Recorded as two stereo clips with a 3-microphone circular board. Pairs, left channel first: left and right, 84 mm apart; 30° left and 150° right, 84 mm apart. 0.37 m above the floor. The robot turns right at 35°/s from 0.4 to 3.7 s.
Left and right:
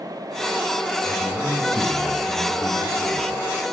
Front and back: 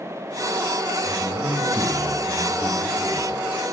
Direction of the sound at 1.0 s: 60° right.